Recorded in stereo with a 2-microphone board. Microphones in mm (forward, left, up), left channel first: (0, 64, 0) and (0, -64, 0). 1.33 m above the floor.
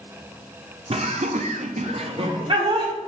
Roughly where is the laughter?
Right.